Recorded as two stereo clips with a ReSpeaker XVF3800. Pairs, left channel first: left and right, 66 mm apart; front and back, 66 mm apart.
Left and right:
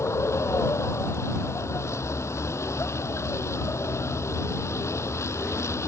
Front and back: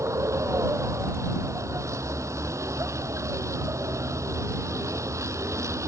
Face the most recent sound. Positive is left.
turn(degrees=135)